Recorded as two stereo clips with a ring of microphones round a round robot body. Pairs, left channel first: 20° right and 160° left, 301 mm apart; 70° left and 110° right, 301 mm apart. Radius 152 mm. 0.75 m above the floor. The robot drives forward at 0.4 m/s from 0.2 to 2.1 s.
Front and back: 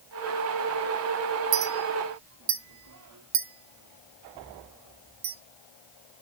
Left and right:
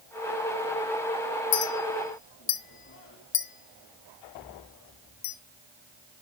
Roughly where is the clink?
Left.